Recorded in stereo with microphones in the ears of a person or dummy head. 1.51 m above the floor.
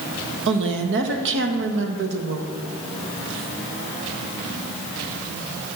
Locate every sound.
0.5 s a woman speaking: 65° right (ahead or behind), 1.4 m